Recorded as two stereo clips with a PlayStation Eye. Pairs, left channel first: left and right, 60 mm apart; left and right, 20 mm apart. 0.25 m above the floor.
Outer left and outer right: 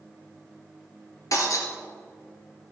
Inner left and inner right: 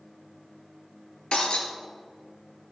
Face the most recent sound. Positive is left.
turn(degrees=65)  # may be behind; listen again after turning